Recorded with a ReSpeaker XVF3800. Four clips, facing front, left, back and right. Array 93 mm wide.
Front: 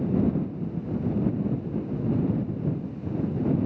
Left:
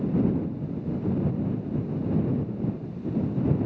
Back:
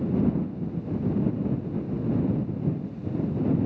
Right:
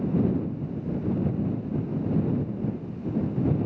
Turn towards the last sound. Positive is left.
No sound to turn to.